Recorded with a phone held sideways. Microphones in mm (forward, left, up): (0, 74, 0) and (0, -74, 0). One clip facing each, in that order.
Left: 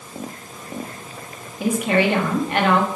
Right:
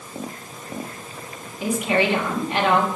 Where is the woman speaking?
55° left (ahead or behind), 1.5 m.